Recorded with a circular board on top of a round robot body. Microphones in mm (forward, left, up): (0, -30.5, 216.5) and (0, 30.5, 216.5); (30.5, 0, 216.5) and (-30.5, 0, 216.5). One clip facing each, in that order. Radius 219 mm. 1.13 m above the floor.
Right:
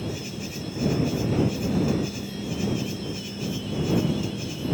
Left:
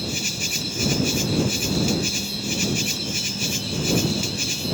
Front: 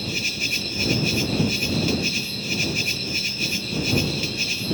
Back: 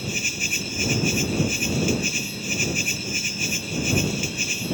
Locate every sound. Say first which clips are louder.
0.0 s an insect: left 3 dB, even; 105° left